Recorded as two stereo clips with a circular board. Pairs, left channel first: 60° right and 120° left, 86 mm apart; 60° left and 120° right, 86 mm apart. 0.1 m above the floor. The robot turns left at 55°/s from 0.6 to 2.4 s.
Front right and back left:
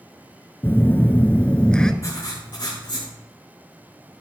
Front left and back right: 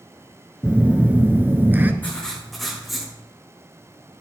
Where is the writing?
10° right, 5.5 m; by 3.1 s 30° right, 5.5 m.